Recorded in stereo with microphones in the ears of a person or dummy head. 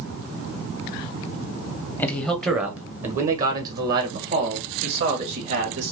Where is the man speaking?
10° left (ahead or behind), 0.8 m; by 5.9 s 65° right (ahead or behind), 2.5 m.